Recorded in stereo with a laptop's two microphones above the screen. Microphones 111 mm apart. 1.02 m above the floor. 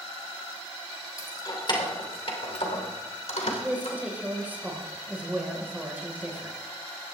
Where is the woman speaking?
15° right (ahead or behind), 4 m.